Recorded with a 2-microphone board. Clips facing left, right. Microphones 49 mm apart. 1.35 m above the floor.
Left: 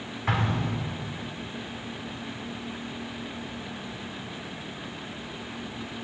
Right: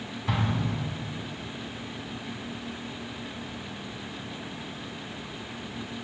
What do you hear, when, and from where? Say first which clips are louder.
0.3 s an explosion: left 2 dB; 60° left (ahead or behind), 1.9 m